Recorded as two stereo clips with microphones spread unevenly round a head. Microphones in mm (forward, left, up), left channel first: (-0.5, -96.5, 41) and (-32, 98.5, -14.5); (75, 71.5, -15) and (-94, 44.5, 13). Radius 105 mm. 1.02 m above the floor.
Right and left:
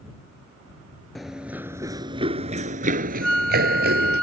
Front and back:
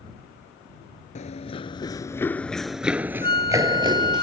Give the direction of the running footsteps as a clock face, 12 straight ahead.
1 o'clock.